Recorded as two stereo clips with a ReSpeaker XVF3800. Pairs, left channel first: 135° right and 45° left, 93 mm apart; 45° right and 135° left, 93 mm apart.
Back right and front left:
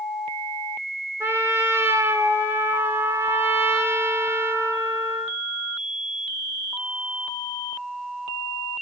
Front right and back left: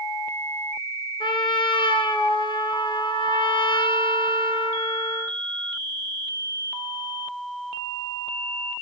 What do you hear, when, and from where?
1.2 s a trumpet: 20° right, 2.5 m